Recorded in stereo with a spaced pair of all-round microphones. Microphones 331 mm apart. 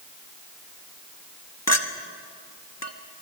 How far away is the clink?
About 1.3 m.